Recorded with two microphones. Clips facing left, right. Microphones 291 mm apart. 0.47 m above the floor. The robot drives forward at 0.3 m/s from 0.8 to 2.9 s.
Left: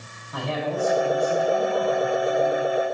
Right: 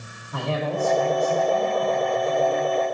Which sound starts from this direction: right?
A man speaking, at 0.3 s.